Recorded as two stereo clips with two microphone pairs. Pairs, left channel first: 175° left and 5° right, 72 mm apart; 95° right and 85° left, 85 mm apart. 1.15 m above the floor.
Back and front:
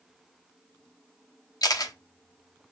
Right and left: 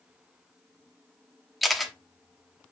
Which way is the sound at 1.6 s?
175° left.